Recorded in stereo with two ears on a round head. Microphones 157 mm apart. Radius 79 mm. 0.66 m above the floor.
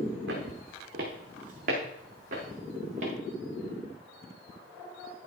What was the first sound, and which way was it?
Footsteps, 55° right (ahead or behind).